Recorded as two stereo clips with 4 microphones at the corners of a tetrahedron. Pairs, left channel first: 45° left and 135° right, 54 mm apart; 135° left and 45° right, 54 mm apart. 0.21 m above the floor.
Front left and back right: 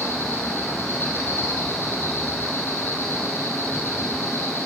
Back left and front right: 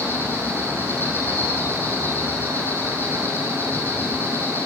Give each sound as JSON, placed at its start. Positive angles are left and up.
{"t": 0.0, "sound": "an insect", "azimuth_deg": 90, "distance_m": 4.0}